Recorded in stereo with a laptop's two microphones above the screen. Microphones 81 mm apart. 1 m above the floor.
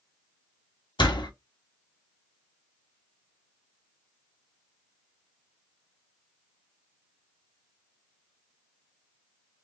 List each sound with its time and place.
1.0 s a door slam: 80° left, 1.2 m